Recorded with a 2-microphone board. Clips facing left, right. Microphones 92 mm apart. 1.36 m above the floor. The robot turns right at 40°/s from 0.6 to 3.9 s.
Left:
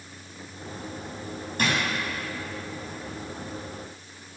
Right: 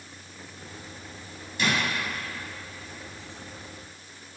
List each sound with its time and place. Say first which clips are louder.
1.6 s a drawer: left 1 dB; 50° left (ahead or behind), 3 m; by 1.8 s 55° left (ahead or behind), 3 m